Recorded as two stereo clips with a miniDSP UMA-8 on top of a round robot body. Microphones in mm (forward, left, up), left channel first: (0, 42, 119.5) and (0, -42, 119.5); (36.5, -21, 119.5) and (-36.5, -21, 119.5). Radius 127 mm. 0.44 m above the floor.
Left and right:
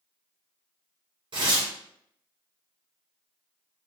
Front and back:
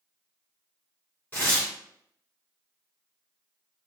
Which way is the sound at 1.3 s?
65° right.